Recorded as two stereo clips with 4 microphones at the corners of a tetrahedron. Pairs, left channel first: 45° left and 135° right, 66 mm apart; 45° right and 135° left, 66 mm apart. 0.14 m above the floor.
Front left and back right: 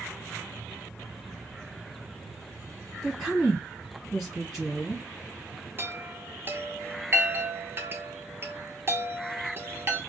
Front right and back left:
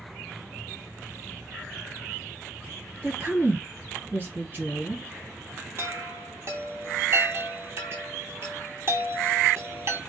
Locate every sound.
3.0 s a woman speaking: 135° left, 1.8 m
5.8 s a chime: 175° left, 0.8 m